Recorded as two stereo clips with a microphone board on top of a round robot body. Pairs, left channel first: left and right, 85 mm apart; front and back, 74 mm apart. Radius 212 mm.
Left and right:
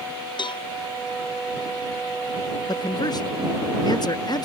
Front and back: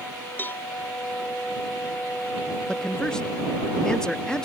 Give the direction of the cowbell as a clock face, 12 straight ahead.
10 o'clock.